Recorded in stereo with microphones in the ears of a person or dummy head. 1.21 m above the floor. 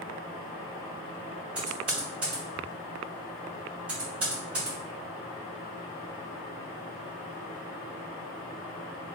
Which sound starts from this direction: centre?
Typing on a keyboard, at 1.6 s.